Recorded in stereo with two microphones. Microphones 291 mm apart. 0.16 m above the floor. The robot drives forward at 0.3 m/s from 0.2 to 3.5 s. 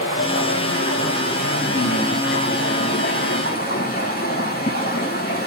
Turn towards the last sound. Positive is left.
turn(degrees=35)  # may be behind; listen again after turning